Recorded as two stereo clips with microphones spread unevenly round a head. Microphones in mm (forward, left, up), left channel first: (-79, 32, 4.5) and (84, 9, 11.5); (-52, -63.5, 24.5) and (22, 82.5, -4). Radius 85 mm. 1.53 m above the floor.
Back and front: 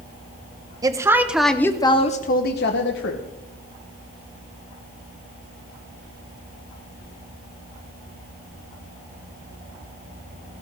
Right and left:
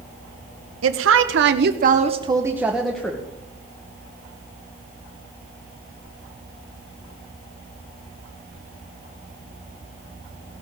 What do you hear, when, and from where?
0.8 s a woman speaking: 60° left, 1.3 m; by 3.2 s 165° left, 1.4 m